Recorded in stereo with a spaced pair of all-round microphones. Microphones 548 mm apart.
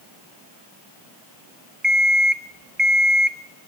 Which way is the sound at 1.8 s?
20° right (ahead or behind).